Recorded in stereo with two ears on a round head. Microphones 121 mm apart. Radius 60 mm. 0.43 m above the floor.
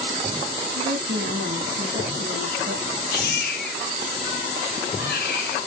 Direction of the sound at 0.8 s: 60° right (ahead or behind).